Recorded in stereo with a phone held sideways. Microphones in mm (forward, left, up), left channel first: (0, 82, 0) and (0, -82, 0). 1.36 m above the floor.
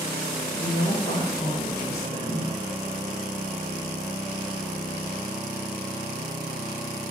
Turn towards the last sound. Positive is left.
turn(degrees=80)